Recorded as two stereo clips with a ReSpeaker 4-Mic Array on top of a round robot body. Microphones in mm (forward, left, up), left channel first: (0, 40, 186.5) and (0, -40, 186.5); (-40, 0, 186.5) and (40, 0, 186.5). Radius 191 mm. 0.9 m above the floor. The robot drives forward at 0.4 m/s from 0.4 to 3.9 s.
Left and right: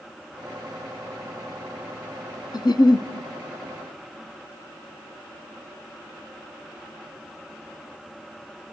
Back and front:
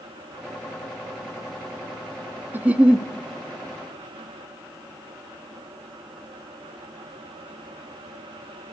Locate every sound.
2.5 s a giggle: 65° left, 0.7 m; by 3.1 s 85° left, 0.7 m